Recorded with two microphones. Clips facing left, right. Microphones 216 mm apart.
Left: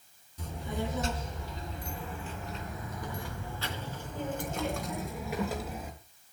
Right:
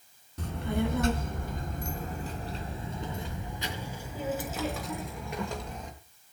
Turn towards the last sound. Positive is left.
turn(degrees=5)  # may be behind; listen again after turning